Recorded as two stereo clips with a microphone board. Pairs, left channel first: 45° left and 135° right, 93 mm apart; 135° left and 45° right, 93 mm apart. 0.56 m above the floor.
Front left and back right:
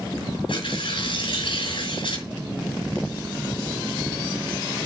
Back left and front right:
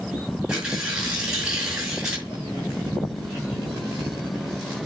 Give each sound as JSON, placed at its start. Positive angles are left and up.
{"t": 0.5, "sound": "tearing paper", "azimuth_deg": 35, "distance_m": 4.5}